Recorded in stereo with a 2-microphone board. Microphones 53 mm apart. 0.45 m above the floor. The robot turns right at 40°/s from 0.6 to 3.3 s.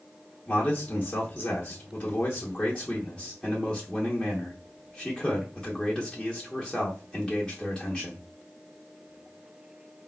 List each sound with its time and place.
0.5 s a man speaking: 20° left (ahead or behind), 0.7 m; by 8.2 s 10° left (ahead or behind), 0.7 m